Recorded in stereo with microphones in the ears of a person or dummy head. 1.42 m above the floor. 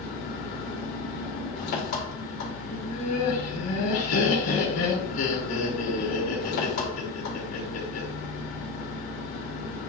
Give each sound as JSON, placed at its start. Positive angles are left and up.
{"t": 0.0, "sound": "an engine running", "side_deg": 60, "distance_m": 1.4}
{"t": 2.7, "sound": "laughter", "side_deg": 75, "distance_m": 1.2}